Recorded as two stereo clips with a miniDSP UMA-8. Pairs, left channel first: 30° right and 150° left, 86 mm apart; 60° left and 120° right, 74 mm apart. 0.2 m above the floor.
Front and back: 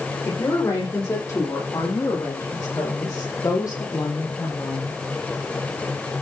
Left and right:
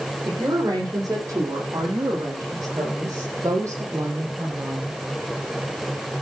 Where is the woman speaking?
85° right, 9 m; by 5.0 s 70° right, 6.5 m.